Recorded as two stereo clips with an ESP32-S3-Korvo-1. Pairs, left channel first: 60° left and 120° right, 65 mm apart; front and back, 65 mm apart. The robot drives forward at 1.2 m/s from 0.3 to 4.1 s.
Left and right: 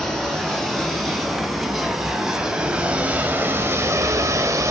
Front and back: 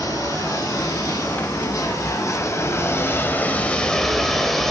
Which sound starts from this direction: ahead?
Running water, at 0.0 s.